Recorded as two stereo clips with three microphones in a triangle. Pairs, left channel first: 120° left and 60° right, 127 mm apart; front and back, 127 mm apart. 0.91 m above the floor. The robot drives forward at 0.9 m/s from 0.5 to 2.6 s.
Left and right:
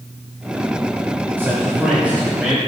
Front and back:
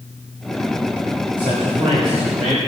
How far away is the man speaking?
About 4 m.